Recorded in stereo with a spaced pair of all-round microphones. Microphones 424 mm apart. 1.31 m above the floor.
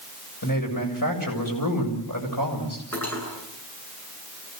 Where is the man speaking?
50° left (ahead or behind), 8 m.